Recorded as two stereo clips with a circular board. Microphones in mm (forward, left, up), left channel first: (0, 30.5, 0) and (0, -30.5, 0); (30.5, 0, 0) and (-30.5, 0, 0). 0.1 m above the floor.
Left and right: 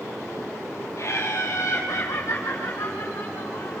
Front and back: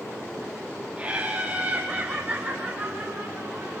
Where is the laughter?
115° left, 2.5 m; by 3.8 s 120° left, 5.5 m.